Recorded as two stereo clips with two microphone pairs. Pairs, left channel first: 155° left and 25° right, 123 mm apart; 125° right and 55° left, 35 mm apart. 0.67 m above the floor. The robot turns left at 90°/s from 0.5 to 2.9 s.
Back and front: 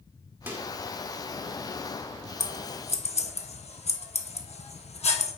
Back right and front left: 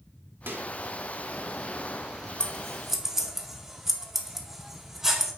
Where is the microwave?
45° left, 1.2 m; by 0.7 s 30° left, 1.2 m.